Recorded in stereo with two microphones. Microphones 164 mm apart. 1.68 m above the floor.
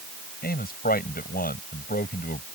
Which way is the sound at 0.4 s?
60° left (ahead or behind).